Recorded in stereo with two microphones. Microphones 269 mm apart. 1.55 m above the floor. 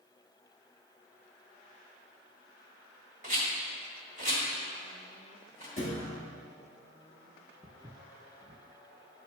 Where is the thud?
50° left (ahead or behind), 1.4 m.